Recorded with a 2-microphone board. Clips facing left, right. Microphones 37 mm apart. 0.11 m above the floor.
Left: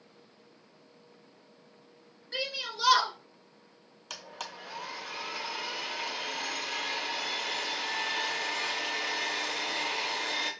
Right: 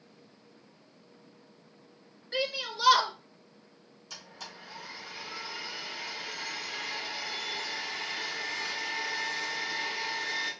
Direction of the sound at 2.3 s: 10° right (ahead or behind).